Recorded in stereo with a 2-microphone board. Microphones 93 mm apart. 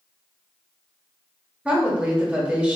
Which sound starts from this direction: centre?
A woman speaking, at 1.6 s.